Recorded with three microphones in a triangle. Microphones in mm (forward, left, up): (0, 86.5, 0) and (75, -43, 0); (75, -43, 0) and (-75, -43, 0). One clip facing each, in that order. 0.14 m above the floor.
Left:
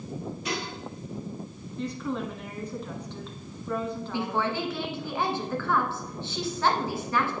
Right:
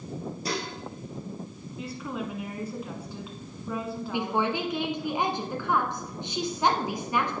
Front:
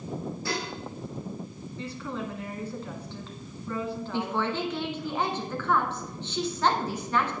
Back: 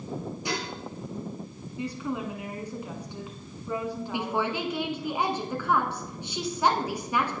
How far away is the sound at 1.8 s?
About 1.3 m.